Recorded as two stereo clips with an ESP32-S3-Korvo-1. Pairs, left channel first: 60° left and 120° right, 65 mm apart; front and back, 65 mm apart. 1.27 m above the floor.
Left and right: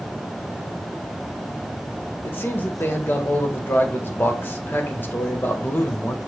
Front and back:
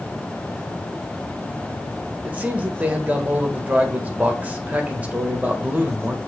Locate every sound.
2.2 s a man speaking: 115° left, 1.5 m